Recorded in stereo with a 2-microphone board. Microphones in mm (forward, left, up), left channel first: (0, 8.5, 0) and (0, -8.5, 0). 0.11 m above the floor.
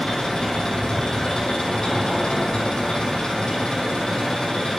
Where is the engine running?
55° left (ahead or behind), 4 m.